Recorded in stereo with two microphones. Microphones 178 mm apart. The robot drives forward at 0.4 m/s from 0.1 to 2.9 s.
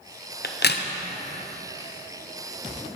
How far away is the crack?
About 0.7 m.